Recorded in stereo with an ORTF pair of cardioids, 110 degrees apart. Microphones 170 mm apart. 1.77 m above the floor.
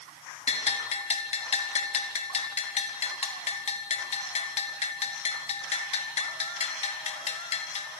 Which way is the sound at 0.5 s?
40° left.